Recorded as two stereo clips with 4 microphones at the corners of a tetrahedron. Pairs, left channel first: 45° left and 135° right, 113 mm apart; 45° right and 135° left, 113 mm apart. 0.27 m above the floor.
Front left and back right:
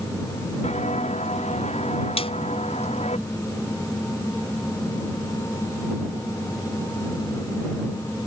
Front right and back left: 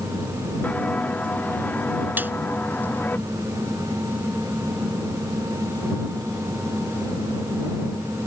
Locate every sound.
0.6 s footsteps: 35° left; by 3.2 s 30° left
2.2 s a snare drum: 65° left